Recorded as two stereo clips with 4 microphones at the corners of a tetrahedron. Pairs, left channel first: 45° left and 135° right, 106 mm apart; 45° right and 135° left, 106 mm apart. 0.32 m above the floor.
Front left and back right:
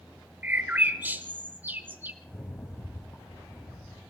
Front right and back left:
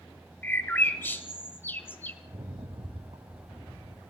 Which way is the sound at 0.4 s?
85° right.